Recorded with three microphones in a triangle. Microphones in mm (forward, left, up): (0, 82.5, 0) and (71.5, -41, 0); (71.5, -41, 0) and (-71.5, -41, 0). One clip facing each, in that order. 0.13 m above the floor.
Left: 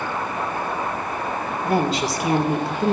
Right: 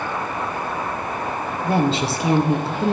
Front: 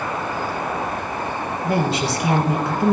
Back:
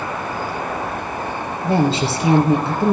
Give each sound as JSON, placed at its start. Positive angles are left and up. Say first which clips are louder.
{"t": 1.6, "sound": "a woman speaking", "louder": "right 1 dB, back 4 dB", "azimuth_deg": -120, "distance_m": 2.5}